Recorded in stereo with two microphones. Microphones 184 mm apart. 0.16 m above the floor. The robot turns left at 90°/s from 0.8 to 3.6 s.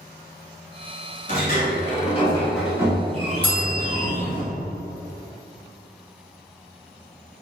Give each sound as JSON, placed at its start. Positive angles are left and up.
{"t": 1.3, "sound": "a sliding door", "azimuth_deg": 115, "distance_m": 1.2}
{"t": 3.4, "sound": "a bell", "side_deg": 55, "distance_m": 1.3}